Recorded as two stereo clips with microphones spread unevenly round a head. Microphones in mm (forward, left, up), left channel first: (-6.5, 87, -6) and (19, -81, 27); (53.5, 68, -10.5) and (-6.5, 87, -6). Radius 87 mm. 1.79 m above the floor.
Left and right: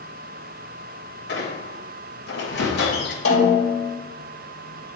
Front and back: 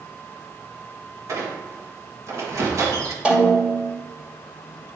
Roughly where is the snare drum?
Left.